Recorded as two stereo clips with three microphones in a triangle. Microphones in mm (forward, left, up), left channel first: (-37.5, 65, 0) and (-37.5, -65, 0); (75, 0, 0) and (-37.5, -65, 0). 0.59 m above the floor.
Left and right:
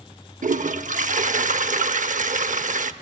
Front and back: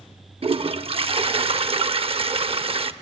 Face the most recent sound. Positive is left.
turn(degrees=-105)